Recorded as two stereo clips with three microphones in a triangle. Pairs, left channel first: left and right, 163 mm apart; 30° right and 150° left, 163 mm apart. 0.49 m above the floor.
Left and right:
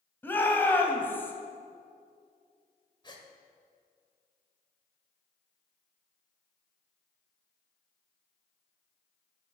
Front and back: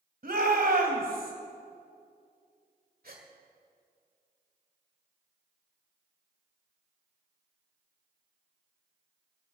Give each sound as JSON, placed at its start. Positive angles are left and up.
{"t": 0.2, "sound": "a shout", "azimuth_deg": 165, "distance_m": 2.5}
{"t": 3.0, "sound": "a gasp", "azimuth_deg": 145, "distance_m": 1.7}